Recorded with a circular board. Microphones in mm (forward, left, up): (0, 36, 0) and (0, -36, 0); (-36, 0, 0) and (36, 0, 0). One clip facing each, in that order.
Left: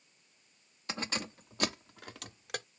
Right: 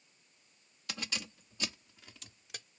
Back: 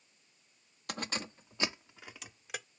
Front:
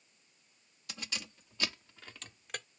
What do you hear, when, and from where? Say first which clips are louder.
0.9 s keys jangling: left 5 dB, back 6 dB; 145° left; by 2.7 s 95° left